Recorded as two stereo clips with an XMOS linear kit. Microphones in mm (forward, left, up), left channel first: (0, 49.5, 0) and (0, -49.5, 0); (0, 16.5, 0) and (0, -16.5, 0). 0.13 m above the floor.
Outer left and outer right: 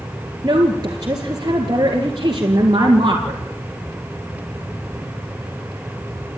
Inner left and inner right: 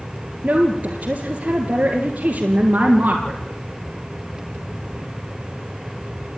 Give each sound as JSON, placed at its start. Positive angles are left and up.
{"t": 0.4, "sound": "a woman speaking", "side_deg": -45, "distance_m": 2.0}